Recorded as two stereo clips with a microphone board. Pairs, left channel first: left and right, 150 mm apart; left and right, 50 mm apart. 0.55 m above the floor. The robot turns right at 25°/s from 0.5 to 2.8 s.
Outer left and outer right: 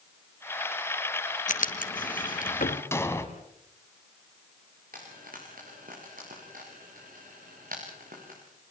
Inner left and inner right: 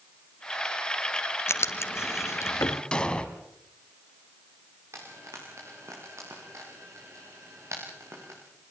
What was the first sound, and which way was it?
Writing, 65° left (ahead or behind).